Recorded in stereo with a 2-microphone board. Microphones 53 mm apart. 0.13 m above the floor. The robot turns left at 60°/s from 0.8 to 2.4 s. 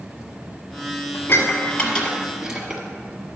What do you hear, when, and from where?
1.1 s dishes clattering: 50° left (ahead or behind), 1.5 m; by 2.8 s 15° right (ahead or behind), 1.5 m